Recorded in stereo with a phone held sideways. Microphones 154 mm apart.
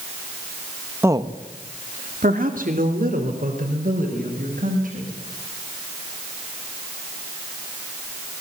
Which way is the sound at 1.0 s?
15° right (ahead or behind).